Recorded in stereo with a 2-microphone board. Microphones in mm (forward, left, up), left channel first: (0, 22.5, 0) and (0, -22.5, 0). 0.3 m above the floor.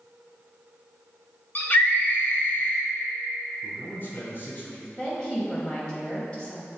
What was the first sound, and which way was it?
A scream, 40° left (ahead or behind).